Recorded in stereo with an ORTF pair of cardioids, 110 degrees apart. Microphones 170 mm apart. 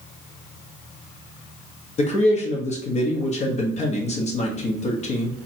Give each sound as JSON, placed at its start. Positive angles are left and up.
{"t": 2.0, "sound": "a man speaking", "azimuth_deg": 40, "distance_m": 1.3}